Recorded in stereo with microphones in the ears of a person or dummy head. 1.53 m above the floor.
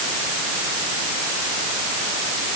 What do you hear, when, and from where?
Only background noise.